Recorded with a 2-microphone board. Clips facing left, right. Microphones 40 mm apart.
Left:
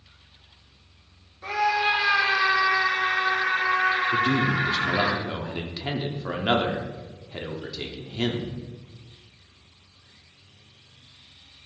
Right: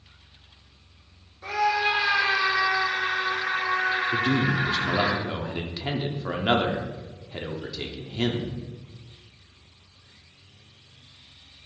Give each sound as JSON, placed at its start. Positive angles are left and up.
{"t": 1.4, "sound": "a scream", "side_deg": 10, "distance_m": 1.7}
{"t": 4.1, "sound": "a man speaking", "side_deg": -5, "distance_m": 1.0}